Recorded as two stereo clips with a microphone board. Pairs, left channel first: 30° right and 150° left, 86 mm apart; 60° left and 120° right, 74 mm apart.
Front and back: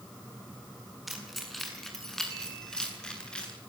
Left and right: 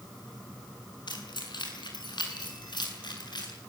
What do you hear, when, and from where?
1.1 s keys jangling: 60° left, 7 m; by 3.5 s 50° left, 9 m